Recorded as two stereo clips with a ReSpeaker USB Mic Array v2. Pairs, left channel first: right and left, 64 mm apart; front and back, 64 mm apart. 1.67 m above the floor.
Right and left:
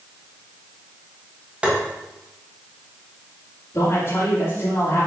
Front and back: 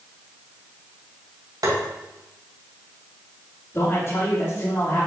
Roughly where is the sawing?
I don't hear sawing.